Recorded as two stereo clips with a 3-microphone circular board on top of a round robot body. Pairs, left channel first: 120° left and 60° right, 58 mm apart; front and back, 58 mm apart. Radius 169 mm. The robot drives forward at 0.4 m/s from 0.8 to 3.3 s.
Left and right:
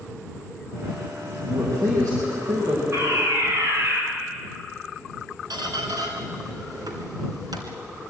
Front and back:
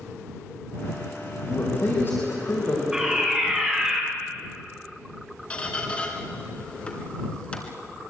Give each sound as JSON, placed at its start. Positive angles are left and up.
{"t": 1.4, "sound": "a man speaking", "azimuth_deg": -45, "distance_m": 5.0}
{"t": 2.9, "sound": "a fire alarm", "azimuth_deg": -100, "distance_m": 5.0}
{"t": 5.5, "sound": "a squeak", "azimuth_deg": -70, "distance_m": 2.5}